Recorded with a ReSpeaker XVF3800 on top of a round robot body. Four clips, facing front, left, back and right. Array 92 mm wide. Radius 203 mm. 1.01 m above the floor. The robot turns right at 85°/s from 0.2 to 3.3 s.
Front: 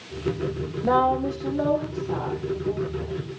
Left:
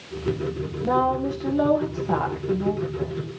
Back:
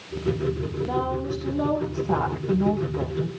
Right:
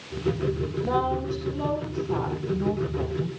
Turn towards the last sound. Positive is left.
turn(degrees=-145)